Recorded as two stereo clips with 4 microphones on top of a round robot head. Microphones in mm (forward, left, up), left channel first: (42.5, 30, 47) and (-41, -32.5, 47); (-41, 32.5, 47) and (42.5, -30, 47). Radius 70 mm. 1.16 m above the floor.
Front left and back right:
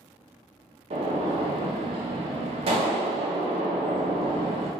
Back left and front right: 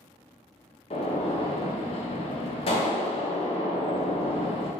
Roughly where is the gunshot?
Behind.